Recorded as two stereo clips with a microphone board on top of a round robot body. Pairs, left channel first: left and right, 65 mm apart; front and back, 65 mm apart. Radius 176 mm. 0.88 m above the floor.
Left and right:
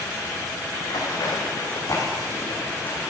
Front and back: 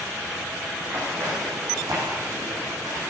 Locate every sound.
0.8 s running footsteps: 115° left, 3.5 m; by 3.1 s 155° left, 4 m